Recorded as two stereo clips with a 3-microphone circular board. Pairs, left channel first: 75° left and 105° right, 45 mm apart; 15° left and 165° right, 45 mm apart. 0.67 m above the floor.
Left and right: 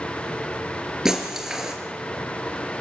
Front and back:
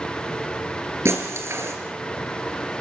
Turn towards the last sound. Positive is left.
turn(degrees=175)